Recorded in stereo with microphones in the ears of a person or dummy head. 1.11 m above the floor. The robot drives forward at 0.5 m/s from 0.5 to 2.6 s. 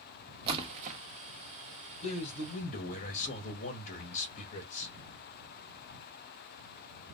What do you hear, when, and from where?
0.5 s a splash: 30° right (ahead or behind), 0.9 m; by 1.0 s 40° right (ahead or behind), 0.7 m
2.0 s a man speaking: 35° left (ahead or behind), 1.6 m; by 4.9 s 40° left (ahead or behind), 1.4 m